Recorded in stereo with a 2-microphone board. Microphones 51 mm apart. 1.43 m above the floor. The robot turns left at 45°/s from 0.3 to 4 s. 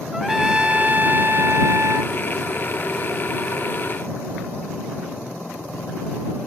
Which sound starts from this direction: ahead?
A trumpet, at 0.1 s.